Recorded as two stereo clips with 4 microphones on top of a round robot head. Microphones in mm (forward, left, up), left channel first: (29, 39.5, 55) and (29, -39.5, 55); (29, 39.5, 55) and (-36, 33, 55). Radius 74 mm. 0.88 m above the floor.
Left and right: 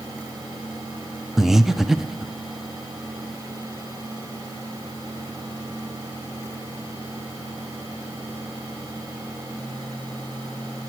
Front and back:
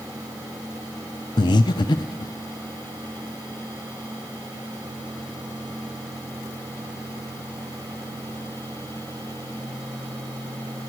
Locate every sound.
1.4 s breathing: 5° right, 0.5 m